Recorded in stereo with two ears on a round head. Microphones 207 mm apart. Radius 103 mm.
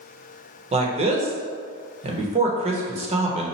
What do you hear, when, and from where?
0.7 s a man speaking: 25° right (ahead or behind), 0.8 m